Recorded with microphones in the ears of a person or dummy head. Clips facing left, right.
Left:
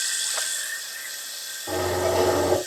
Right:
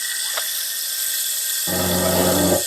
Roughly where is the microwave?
Centre.